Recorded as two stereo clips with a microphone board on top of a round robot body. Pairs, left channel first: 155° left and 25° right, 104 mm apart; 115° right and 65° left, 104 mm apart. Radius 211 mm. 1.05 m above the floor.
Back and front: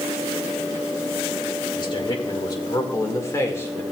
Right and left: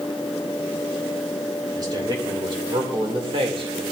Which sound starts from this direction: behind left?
A man speaking, at 1.8 s.